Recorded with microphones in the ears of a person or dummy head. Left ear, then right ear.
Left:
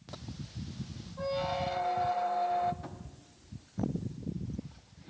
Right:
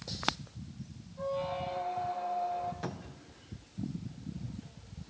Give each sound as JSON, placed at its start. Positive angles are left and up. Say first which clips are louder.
{"t": 1.2, "sound": "a squeak", "louder": "left 2 dB", "side_deg": 70, "distance_m": 0.6}
{"t": 2.8, "sound": "a cupboard door", "louder": "right 5 dB", "side_deg": -70, "distance_m": 0.7}